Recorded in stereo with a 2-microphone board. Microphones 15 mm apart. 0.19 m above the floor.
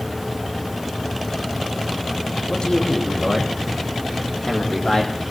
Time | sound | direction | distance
2.5 | a man speaking | 75° left (ahead or behind) | 7.5 m